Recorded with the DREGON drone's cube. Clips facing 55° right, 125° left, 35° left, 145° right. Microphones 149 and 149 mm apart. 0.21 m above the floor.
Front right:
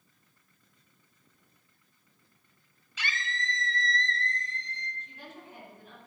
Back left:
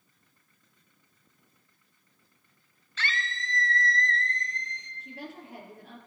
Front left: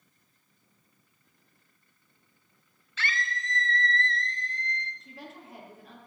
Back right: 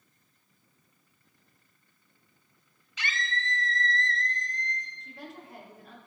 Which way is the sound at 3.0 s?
105° right.